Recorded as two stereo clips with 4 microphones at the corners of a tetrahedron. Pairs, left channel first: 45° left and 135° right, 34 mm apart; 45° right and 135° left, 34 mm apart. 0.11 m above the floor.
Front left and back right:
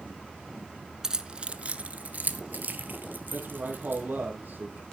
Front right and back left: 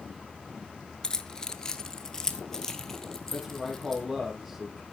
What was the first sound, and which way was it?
Keys jangling, 85° right.